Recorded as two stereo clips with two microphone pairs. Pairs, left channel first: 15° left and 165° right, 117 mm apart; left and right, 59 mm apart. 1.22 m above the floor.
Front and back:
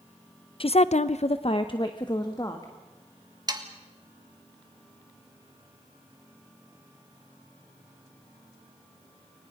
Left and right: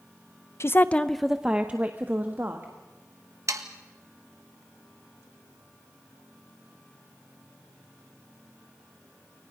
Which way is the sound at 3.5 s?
110° right.